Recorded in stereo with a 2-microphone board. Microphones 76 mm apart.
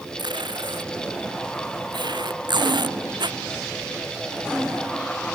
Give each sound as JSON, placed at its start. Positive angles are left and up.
{"t": 0.2, "sound": "tape being pulled", "side_deg": -75}